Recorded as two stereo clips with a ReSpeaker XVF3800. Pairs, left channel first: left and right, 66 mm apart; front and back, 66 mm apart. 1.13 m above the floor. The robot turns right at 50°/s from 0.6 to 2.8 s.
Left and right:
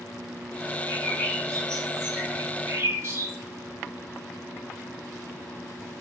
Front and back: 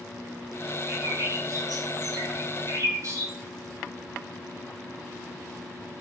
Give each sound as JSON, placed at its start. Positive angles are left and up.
{"t": 0.9, "sound": "a bird", "azimuth_deg": 125, "distance_m": 5.5}